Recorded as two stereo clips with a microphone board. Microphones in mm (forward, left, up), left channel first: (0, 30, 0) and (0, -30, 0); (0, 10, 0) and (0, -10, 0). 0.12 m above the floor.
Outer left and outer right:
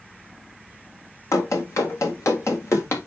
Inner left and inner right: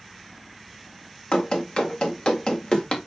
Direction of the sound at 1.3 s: 55° left (ahead or behind).